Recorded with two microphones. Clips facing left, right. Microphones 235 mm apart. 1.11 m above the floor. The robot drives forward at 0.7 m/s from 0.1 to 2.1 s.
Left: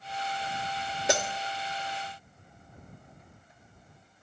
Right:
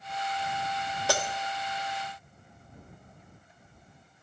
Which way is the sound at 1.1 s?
20° left (ahead or behind).